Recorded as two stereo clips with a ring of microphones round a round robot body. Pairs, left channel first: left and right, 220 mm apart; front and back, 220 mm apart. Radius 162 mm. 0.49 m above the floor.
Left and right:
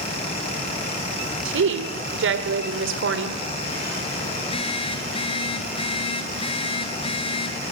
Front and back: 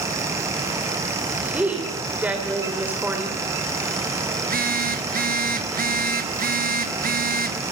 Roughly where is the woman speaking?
Right.